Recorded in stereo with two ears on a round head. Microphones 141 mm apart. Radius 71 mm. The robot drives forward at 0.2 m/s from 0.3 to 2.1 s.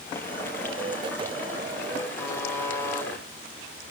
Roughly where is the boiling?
Centre.